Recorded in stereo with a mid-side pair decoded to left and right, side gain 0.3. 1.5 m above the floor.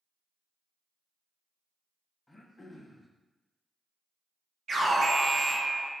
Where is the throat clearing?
25° left, 0.6 m.